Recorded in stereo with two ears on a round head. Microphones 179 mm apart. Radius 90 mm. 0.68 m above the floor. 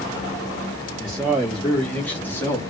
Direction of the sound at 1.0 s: Centre (ahead or behind).